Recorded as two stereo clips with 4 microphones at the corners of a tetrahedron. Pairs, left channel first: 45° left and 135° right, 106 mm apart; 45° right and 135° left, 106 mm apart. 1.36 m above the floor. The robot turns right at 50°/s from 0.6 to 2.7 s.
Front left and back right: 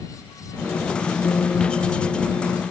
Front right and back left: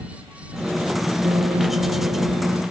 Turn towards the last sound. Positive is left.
turn(degrees=175)